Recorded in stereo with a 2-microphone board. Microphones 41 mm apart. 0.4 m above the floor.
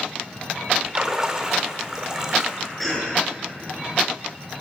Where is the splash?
15° right (ahead or behind), 0.9 m.